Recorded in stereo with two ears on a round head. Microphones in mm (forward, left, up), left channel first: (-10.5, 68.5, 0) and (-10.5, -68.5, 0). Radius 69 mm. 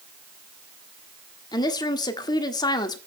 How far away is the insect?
No insect in this recording.